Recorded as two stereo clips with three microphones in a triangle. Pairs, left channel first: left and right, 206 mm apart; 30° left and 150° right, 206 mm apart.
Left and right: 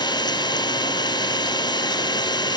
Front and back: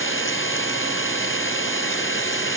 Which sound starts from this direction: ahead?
An engine running, at 0.0 s.